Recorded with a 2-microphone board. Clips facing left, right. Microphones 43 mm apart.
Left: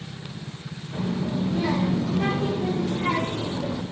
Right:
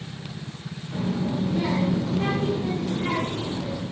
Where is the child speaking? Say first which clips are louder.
Right 1 dB; 30° right (ahead or behind), 1.7 m; by 3.8 s 25° left (ahead or behind), 2.5 m.